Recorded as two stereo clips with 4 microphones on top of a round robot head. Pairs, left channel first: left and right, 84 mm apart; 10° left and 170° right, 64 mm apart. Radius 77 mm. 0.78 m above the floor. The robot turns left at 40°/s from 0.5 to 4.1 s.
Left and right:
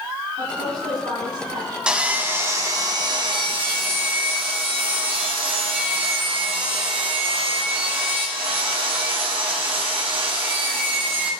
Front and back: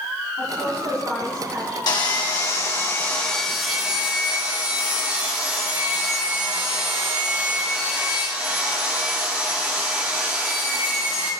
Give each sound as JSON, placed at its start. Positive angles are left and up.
{"t": 0.4, "sound": "a woman speaking", "azimuth_deg": -60, "distance_m": 8.0}
{"t": 1.9, "sound": "sawing", "azimuth_deg": -10, "distance_m": 2.5}